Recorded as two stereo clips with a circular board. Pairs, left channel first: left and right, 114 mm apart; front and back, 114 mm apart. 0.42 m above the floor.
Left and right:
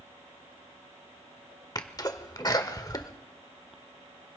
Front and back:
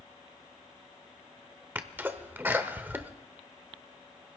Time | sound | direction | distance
1.8 | a sneeze | 120° left | 1.1 m